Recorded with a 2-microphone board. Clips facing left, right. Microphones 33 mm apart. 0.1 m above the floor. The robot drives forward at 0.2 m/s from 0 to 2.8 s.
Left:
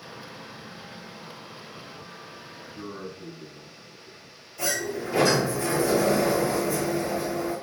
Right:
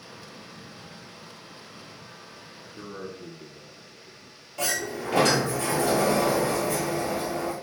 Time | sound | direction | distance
2.8 | a man speaking | 10° right (ahead or behind) | 1.5 m
4.6 | a sliding door | 60° right (ahead or behind) | 1.0 m